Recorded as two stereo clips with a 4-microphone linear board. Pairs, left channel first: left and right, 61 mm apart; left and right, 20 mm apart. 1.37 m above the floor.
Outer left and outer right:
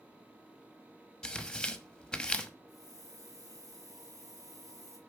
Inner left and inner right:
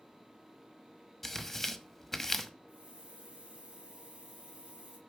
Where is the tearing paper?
10° left (ahead or behind), 1.0 m.